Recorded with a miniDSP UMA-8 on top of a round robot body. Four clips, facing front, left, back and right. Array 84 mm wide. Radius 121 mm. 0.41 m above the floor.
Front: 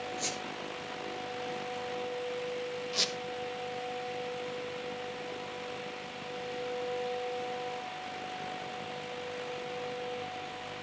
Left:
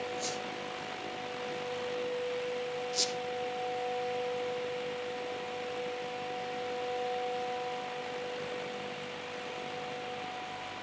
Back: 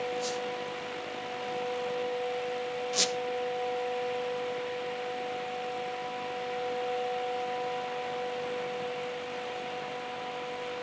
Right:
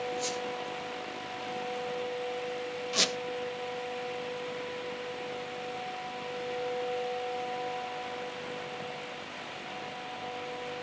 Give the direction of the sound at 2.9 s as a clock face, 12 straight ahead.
3 o'clock.